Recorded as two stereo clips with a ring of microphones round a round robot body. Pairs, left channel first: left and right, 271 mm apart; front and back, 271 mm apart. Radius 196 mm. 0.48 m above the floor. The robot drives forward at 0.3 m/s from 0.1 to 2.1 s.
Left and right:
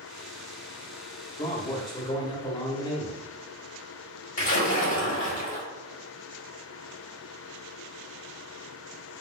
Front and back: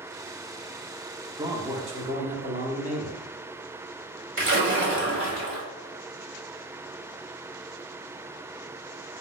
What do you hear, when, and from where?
1.4 s a man speaking: 125° left, 0.8 m; by 3.3 s 150° left, 0.9 m
4.4 s a splash: 140° left, 2.0 m